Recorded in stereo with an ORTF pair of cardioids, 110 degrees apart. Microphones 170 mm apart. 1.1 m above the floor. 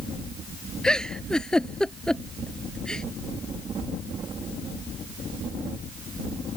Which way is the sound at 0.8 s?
5° left.